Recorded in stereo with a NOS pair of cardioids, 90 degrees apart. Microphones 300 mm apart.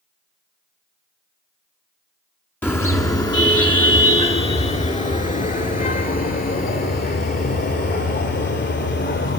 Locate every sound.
2.6 s a car horn: 5° left, 6.5 m; by 9.4 s 35° left, 15.5 m